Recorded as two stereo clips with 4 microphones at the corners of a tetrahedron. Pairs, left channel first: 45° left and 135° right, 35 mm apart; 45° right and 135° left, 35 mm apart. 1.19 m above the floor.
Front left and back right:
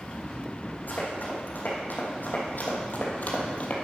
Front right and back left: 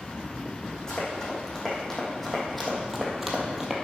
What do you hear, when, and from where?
0.9 s running footsteps: 25° left, 3.5 m; by 3.8 s 65° left, 1.5 m